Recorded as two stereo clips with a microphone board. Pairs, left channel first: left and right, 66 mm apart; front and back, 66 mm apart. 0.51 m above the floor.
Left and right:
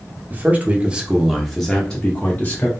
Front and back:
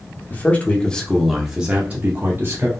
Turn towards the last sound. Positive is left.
turn(degrees=145)